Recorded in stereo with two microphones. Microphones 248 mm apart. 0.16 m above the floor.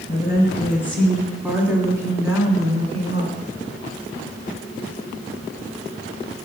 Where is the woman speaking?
15° left (ahead or behind), 1.4 m; by 3.5 s 30° right (ahead or behind), 1.7 m.